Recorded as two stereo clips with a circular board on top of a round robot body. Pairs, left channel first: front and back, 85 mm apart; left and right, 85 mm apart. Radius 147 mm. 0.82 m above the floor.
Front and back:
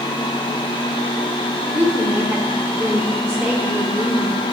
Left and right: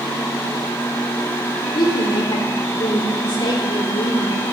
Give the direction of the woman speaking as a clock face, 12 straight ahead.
9 o'clock.